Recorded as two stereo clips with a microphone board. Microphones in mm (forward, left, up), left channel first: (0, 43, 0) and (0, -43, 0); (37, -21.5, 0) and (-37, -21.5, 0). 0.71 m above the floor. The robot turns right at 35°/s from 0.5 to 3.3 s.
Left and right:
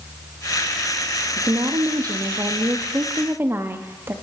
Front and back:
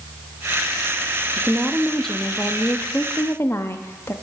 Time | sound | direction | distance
1.4 | a woman speaking | 105° right | 0.6 m